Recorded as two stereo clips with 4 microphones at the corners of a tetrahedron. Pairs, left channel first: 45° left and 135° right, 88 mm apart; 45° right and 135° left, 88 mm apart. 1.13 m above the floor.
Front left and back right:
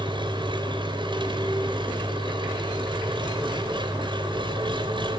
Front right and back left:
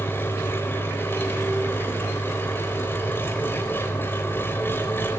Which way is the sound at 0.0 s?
110° right.